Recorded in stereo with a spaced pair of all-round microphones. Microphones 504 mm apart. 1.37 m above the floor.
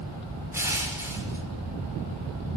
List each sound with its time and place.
0.5 s crushing: 5° right (ahead or behind), 5.5 m